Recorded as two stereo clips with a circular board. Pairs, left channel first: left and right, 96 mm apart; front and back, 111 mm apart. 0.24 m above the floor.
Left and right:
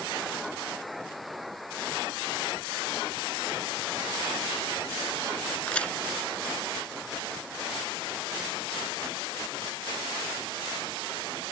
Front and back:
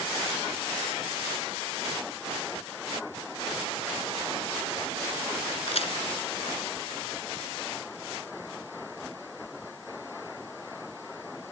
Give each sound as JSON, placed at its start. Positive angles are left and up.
{"t": 5.7, "sound": "a crack", "azimuth_deg": 15}